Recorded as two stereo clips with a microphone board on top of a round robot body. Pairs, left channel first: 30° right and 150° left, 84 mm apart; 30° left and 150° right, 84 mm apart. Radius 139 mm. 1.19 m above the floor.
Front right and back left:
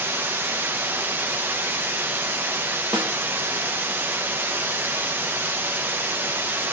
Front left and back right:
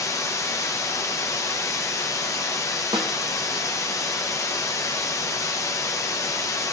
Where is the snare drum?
Straight behind, 0.6 m.